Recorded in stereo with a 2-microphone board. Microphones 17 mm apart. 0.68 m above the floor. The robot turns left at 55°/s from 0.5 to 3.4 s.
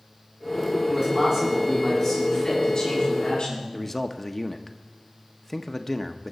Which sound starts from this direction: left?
A man speaking, at 3.7 s.